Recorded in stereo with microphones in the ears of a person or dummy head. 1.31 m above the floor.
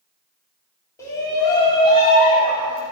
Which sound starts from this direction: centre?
A shout, at 1.0 s.